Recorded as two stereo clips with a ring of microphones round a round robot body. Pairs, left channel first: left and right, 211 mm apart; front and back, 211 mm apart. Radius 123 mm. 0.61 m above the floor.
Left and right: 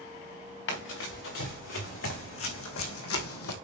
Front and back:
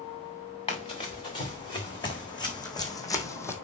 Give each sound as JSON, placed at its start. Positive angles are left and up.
{"t": 0.7, "sound": "running footsteps", "azimuth_deg": 65, "distance_m": 4.5}